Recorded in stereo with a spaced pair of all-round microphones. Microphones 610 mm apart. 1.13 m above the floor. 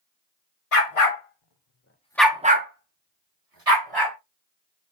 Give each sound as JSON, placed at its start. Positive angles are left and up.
{"t": 0.7, "sound": "a dog barking", "side_deg": 60, "distance_m": 1.1}